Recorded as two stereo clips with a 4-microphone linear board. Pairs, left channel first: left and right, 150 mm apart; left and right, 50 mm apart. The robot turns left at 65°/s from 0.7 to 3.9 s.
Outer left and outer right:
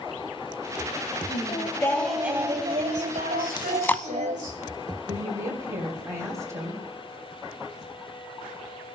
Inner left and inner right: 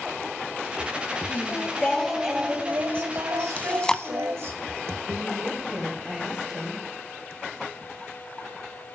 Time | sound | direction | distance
1.3 | singing | 55° left | 2 m
3.6 | chewing | 35° left (ahead or behind) | 0.5 m
5.1 | a woman speaking | 20° right (ahead or behind) | 3 m